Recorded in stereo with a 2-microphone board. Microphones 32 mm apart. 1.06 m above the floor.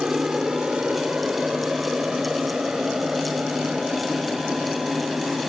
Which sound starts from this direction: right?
An aircraft, at 0.0 s.